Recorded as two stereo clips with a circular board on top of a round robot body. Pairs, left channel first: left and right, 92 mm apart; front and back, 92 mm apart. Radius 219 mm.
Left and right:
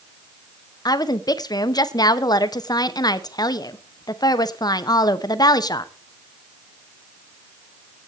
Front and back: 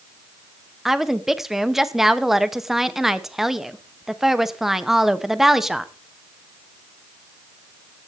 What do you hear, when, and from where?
0.8 s a woman speaking: 95° left, 1.5 m